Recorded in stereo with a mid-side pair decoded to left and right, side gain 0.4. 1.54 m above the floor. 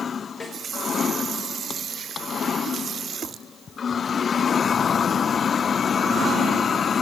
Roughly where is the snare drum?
Ahead left.